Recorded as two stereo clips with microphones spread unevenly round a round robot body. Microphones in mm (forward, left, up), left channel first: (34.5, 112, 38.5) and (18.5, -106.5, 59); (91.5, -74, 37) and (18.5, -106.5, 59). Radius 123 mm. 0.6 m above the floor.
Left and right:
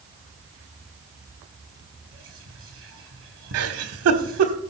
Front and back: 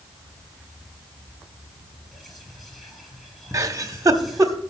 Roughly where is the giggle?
Right.